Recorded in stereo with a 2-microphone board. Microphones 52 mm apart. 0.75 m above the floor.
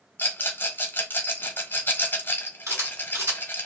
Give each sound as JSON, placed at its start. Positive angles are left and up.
{"t": 0.2, "sound": "a rattle", "side_deg": 40, "distance_m": 1.2}
{"t": 2.7, "sound": "a camera shutter", "side_deg": -70, "distance_m": 4.0}